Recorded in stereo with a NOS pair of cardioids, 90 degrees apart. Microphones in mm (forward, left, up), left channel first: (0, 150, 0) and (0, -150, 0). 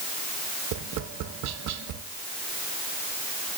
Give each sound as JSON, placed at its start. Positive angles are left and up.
{"t": 0.7, "sound": "tapping", "azimuth_deg": -65, "distance_m": 0.7}